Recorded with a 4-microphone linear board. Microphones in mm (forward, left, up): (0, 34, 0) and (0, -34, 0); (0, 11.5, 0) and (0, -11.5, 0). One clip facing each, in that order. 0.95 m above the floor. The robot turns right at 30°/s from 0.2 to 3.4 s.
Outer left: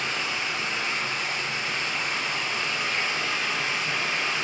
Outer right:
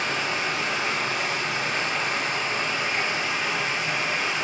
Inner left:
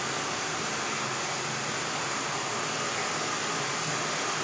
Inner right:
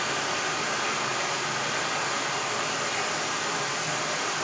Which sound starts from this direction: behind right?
Running water, at 0.0 s.